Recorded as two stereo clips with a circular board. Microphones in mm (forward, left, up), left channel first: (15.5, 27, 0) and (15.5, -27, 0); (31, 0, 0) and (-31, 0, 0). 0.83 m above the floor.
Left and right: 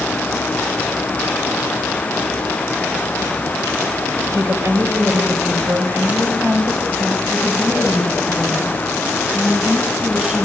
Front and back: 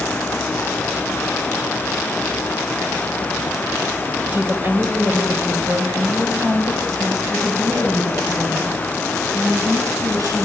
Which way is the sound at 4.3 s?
115° right.